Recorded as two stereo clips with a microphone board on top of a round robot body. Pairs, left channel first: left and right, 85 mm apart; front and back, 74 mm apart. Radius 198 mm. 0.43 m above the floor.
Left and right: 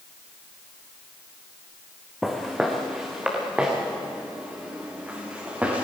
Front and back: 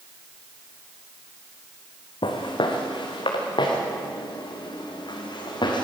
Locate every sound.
2.2 s footsteps: 5° right, 2.5 m; by 5.8 s 20° right, 5 m